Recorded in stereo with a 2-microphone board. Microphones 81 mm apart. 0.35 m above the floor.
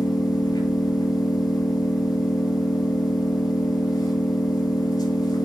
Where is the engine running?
50° left (ahead or behind), 2 m.